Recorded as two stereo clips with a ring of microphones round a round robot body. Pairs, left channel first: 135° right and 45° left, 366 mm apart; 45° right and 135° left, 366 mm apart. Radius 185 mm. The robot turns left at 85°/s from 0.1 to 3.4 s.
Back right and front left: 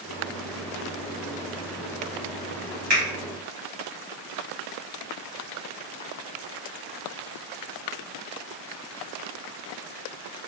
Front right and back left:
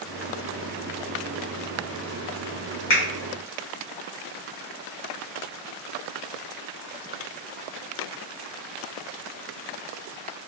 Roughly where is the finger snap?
Ahead.